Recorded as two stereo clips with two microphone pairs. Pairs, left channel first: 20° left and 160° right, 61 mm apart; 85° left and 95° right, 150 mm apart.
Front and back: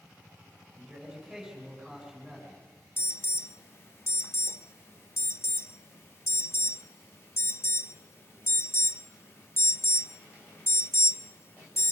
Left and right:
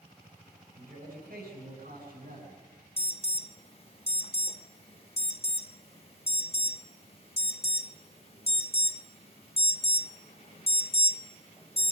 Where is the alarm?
50° left, 0.6 m.